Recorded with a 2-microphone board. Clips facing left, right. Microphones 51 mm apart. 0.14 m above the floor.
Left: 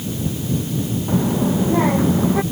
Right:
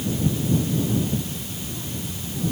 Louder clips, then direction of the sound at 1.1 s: Left 12 dB; 75° left (ahead or behind).